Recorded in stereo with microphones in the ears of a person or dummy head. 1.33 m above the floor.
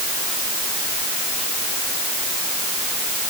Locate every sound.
Only background noise.